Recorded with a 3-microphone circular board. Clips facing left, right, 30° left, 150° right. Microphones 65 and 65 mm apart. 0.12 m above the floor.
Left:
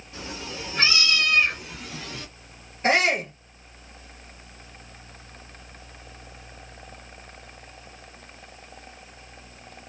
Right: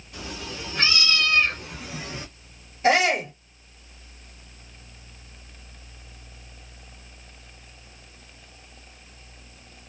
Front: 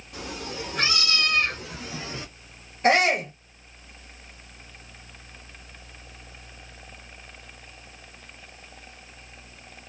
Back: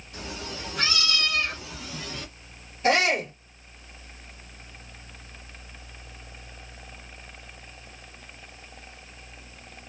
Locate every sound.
0.1 s a cat meowing: 30° left, 1.5 m; by 2.3 s 30° right, 0.8 m
2.8 s a shout: 50° left, 2.5 m